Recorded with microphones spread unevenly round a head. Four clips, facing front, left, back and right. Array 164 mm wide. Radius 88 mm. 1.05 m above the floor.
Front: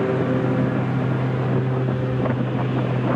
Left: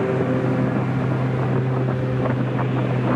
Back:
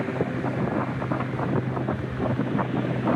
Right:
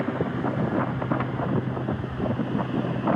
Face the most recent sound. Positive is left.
turn(degrees=35)